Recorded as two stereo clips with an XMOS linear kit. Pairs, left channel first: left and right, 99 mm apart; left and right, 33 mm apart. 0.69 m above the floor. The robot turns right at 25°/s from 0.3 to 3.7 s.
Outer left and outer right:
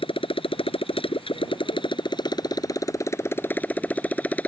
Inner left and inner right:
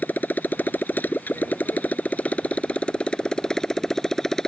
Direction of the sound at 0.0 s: 80° left.